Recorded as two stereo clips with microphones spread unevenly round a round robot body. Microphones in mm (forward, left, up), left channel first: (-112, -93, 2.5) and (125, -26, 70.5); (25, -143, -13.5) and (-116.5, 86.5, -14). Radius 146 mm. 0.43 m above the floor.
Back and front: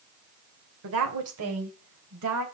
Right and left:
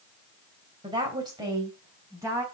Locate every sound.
0.8 s a woman speaking: 50° left, 2.5 m; by 2.4 s 40° left, 3.5 m